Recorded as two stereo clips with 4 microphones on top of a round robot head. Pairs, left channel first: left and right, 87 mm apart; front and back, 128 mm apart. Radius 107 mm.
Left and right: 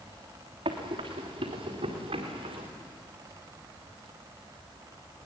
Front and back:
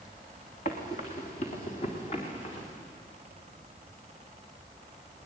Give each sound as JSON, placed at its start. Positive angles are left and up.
{"t": 0.7, "sound": "running footsteps", "azimuth_deg": -45, "distance_m": 3.5}